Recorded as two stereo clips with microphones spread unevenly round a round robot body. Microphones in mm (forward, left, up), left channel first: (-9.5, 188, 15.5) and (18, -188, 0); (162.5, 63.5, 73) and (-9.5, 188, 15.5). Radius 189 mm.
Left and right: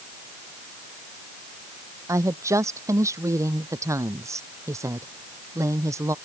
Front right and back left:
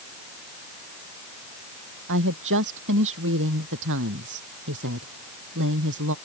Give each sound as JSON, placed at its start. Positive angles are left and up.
{"t": 2.1, "sound": "a woman speaking", "azimuth_deg": -170}